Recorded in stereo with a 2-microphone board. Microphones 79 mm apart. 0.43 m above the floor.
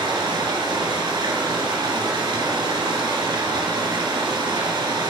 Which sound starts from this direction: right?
Running water, at 0.0 s.